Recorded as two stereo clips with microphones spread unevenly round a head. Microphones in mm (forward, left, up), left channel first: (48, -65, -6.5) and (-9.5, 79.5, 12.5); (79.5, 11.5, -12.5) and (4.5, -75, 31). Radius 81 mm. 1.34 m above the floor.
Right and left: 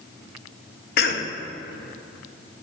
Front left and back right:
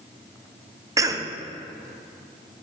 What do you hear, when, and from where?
1.0 s a cough: 60° right, 0.8 m